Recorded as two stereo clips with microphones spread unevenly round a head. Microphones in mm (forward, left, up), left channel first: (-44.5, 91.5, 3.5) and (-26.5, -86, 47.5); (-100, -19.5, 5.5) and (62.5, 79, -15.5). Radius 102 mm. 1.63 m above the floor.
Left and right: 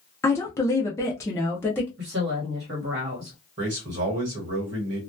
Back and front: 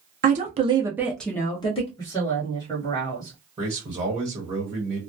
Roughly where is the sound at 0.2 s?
Ahead.